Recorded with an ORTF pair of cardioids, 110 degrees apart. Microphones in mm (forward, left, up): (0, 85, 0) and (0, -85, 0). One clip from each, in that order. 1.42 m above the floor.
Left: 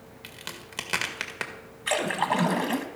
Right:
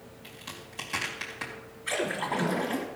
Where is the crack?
70° left, 2 m.